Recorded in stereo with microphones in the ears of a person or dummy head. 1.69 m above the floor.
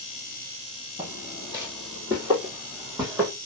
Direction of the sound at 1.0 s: 15° right (ahead or behind).